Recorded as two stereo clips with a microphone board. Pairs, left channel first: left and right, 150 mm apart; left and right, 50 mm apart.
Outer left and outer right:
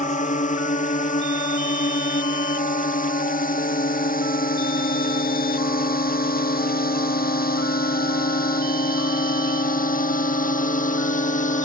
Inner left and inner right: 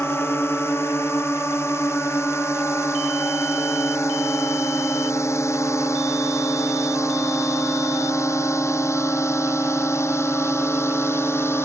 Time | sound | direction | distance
0.0 | a drone | 55° left (ahead or behind) | ?